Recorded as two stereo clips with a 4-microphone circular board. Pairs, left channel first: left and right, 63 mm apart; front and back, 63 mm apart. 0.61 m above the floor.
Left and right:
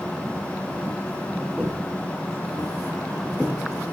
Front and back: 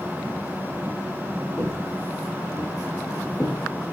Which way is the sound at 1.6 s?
10° right.